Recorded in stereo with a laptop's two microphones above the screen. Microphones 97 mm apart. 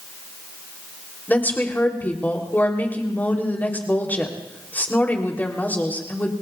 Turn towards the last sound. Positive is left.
turn(degrees=20)  # may be behind; listen again after turning